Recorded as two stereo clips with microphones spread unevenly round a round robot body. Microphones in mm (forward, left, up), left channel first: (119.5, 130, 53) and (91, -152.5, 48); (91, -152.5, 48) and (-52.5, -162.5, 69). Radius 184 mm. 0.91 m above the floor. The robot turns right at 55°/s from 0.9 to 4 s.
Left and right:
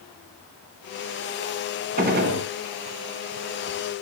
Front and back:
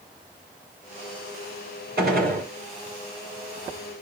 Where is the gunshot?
170° right, 3 m; by 2.5 s 140° right, 3 m.